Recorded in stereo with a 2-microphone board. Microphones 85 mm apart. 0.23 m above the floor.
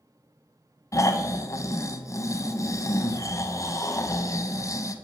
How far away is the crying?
No crying in this recording.